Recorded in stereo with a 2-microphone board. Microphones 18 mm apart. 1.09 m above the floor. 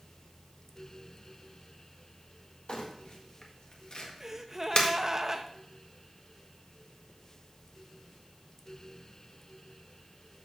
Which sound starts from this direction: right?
A gasp, at 4.2 s.